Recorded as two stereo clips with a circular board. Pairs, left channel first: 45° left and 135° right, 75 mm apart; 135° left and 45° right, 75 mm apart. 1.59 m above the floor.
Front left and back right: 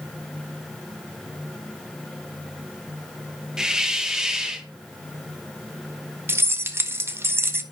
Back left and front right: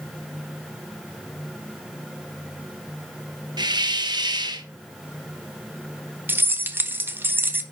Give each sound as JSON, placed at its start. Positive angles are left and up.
{"t": 3.6, "sound": "a hiss", "azimuth_deg": -55, "distance_m": 1.4}
{"t": 6.3, "sound": "keys jangling", "azimuth_deg": -95, "distance_m": 0.9}